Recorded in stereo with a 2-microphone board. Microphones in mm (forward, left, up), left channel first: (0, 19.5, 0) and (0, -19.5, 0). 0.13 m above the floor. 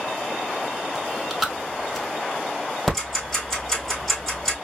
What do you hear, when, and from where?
0.9 s chewing: centre (ahead or behind), 0.9 m
2.9 s ticking: centre (ahead or behind), 2.5 m